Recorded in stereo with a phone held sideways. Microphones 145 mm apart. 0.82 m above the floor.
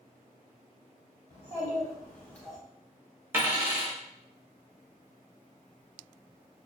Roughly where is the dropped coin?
Centre.